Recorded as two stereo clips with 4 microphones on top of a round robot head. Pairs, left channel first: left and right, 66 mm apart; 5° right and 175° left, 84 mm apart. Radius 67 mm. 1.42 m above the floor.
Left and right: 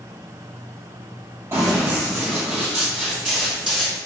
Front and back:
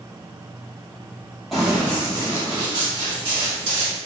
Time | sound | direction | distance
1.5 | running footsteps | 100° right | 1.5 m